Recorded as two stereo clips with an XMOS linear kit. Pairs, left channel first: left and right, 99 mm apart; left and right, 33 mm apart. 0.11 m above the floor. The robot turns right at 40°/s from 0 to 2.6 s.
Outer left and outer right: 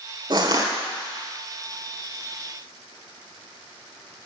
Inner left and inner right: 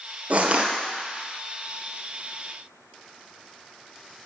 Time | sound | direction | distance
0.3 | crushing | 45° right (ahead or behind) | 1.5 m